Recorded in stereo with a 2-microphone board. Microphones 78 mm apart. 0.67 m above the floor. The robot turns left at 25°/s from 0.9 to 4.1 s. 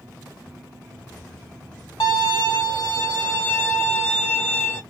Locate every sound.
2.0 s a violin: 80° left, 2 m; by 4.8 s 25° left, 2 m